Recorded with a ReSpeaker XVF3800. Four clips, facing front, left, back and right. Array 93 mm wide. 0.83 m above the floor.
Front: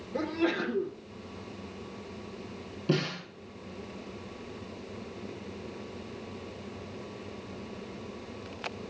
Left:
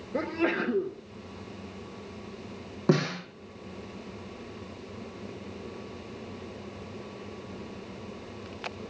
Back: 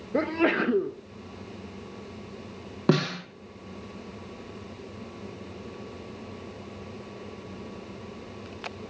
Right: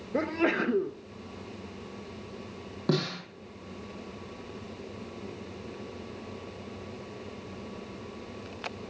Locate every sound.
0.1 s a sneeze: 170° right, 1.0 m
2.9 s a snare drum: 165° left, 6.5 m